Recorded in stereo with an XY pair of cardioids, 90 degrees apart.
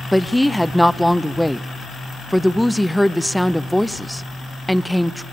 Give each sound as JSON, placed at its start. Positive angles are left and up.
{"t": 0.1, "sound": "a woman speaking", "azimuth_deg": 0, "distance_m": 0.7}